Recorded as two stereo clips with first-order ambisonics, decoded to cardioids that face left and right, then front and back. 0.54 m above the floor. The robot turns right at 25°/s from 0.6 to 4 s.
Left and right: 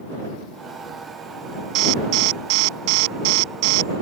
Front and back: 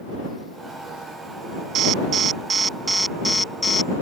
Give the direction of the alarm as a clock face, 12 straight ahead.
4 o'clock.